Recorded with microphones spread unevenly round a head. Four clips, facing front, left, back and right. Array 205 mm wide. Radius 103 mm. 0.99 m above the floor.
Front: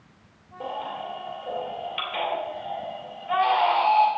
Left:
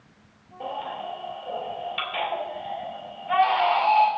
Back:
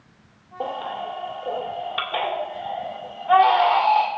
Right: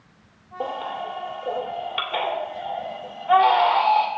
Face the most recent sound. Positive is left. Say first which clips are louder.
# right 3 dB, back 4 dB
turn(degrees=-125)